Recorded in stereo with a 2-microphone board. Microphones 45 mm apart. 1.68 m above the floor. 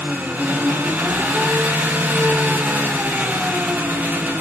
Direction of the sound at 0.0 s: 40° right (ahead or behind).